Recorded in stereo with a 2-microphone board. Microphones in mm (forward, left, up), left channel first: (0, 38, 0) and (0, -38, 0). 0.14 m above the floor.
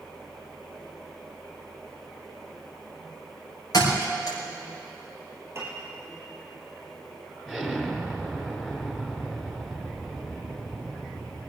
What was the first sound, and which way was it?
A thud, 50° left (ahead or behind).